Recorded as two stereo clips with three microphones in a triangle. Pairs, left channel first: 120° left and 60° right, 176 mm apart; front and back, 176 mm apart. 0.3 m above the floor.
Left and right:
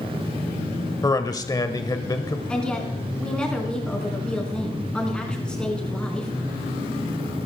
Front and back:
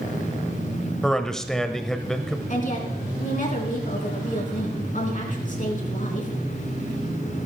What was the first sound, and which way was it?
A man speaking, 85° left.